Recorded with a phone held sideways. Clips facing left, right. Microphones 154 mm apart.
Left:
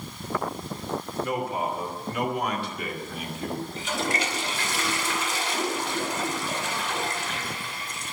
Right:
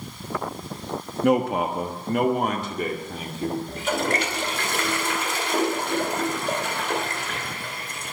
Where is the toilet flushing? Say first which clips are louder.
Right 4 dB; 60° right (ahead or behind), 2 m.